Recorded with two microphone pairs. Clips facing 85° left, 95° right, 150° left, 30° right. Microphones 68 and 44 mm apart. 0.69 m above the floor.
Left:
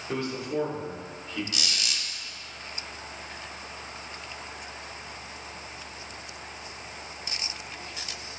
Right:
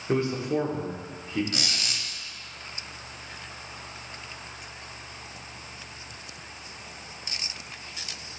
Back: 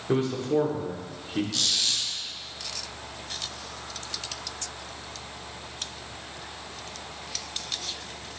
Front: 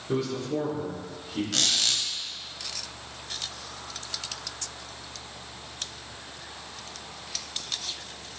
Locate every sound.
0.1 s a man speaking: 160° right, 1.7 m
1.5 s a squeak: 50° right, 1.1 m